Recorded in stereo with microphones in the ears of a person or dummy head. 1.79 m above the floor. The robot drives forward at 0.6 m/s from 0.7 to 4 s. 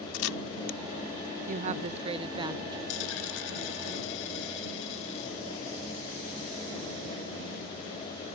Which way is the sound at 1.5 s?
45° right (ahead or behind).